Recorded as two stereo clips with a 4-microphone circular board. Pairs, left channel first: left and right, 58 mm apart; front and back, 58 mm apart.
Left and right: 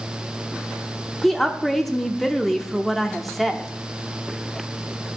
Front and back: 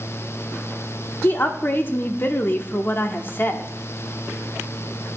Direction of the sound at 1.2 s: 5° left.